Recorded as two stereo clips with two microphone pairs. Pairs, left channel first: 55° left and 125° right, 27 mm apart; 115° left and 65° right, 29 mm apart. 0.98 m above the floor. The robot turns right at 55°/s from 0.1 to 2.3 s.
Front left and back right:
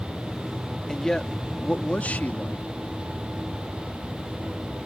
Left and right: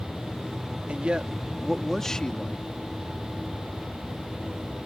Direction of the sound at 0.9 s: 25° right.